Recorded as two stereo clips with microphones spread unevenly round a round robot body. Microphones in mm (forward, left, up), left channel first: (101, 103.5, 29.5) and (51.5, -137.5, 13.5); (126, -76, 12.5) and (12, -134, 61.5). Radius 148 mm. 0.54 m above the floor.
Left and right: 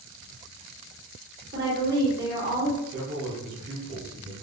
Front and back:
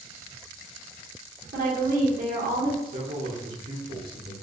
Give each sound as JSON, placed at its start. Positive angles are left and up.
{"t": 1.5, "sound": "a woman speaking", "azimuth_deg": -145, "distance_m": 1.6}
{"t": 2.9, "sound": "a man speaking", "azimuth_deg": -160, "distance_m": 1.5}